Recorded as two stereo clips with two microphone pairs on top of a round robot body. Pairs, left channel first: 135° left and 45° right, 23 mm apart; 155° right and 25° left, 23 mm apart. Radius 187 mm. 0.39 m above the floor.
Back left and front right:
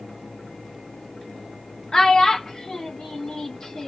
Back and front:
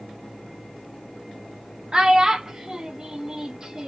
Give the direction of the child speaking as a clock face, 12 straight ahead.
9 o'clock.